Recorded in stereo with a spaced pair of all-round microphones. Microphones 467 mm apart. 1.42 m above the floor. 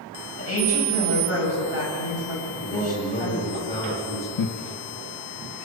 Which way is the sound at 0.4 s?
30° left (ahead or behind).